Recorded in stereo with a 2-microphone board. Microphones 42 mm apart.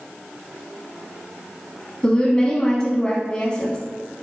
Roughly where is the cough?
No cough in this recording.